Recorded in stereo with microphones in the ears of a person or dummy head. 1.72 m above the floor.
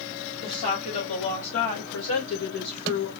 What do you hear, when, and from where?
0.4 s a woman speaking: 35° left (ahead or behind), 2 m; by 3.1 s 80° left, 2.0 m